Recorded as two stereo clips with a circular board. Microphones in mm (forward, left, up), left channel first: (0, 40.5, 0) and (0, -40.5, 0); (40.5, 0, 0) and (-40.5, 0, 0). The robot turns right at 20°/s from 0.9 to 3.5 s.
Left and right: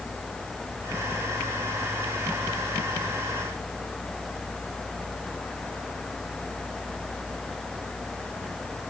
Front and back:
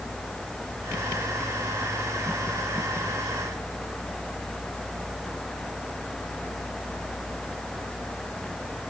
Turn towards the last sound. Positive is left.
No sound to turn to.